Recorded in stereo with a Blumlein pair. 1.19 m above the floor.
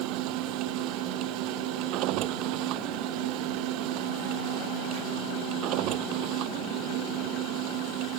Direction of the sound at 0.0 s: 40° right.